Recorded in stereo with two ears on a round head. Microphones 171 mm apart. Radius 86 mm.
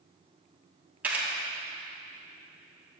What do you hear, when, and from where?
1.0 s a camera shutter: 10° right (ahead or behind), 2.5 m